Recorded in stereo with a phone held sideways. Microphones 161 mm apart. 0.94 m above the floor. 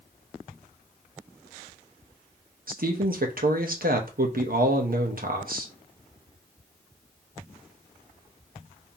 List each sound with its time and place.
2.7 s a man speaking: 65° right (ahead or behind), 1.0 m